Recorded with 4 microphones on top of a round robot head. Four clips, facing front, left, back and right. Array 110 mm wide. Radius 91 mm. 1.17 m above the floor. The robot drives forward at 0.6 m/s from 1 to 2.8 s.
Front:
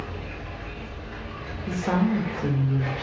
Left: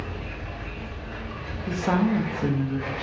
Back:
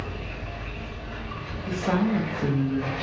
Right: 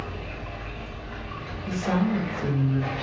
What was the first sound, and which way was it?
Running water, 70° left.